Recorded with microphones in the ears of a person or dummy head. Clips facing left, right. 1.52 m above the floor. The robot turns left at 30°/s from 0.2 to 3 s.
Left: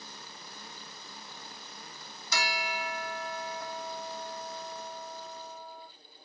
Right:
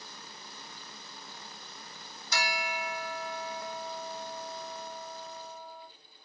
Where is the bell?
75° left (ahead or behind), 0.8 m; by 5.9 s 55° left (ahead or behind), 0.8 m.